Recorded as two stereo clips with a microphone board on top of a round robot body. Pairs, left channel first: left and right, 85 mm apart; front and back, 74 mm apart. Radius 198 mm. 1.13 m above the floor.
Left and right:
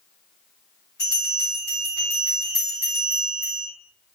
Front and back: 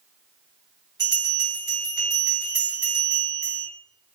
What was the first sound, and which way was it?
A bell, 145° left.